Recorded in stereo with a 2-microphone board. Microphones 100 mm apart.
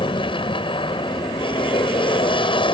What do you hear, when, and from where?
0.0 s an aircraft: 60° left (ahead or behind)